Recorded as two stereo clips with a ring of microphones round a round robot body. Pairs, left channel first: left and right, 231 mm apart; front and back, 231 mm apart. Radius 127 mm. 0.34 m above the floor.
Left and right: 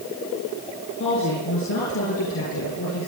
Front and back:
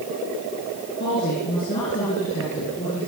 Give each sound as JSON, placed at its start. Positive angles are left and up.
{"t": 1.0, "sound": "a woman speaking", "azimuth_deg": 50, "distance_m": 6.0}